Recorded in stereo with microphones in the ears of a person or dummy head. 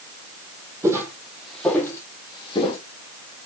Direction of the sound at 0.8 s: 15° right (ahead or behind).